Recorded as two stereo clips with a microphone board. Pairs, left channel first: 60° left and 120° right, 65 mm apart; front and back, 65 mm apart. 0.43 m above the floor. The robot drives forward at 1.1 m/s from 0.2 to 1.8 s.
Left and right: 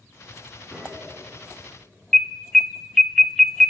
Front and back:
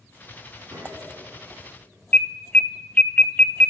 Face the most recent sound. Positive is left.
turn(degrees=-15)